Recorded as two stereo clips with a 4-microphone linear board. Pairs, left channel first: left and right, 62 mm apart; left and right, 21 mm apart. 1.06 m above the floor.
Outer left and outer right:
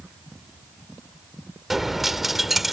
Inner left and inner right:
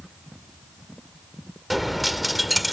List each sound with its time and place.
1.7 s a dropped coin: centre (ahead or behind)